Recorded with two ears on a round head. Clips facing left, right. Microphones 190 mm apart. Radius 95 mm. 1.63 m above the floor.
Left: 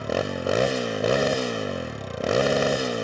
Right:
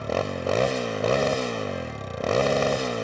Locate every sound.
0.0 s a motorcycle: 10° left (ahead or behind)